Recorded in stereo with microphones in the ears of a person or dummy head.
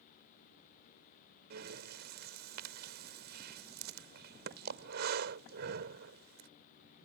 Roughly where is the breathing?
Right.